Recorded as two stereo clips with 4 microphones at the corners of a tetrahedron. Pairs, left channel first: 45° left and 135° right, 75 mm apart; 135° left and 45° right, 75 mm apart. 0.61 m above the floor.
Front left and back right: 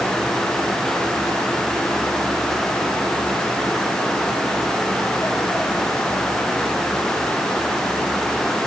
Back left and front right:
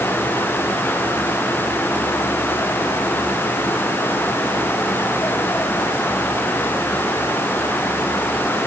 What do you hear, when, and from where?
Only background noise.